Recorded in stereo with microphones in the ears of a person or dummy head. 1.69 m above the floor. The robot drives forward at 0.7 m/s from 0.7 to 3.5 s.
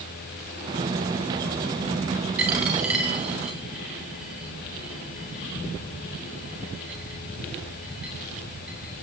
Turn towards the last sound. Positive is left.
turn(degrees=-5)  # may be behind; listen again after turning